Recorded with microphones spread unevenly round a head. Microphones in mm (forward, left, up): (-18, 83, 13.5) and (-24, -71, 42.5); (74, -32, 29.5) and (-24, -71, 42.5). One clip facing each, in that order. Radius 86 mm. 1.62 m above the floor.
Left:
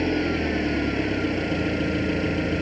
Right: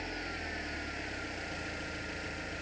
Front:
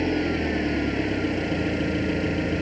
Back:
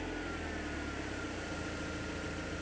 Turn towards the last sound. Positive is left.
turn(degrees=60)